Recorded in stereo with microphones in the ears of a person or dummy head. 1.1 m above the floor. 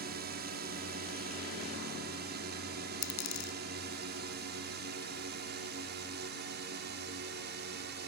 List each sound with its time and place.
0.0 s a drone: 50° right (ahead or behind); by 8.1 s 55° right (ahead or behind)
3.0 s a dropped coin: 70° left (ahead or behind)